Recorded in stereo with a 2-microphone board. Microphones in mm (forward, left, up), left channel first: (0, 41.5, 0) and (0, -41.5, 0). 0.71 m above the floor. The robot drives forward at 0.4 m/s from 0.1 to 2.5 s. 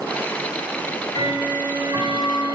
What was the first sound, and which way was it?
Ticking, 65° left (ahead or behind).